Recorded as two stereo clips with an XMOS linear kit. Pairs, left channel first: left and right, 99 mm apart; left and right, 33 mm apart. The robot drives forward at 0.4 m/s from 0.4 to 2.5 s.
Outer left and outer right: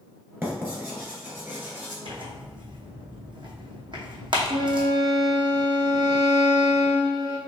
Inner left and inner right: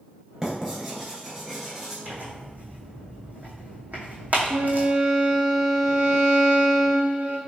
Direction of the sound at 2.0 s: 65° right (ahead or behind).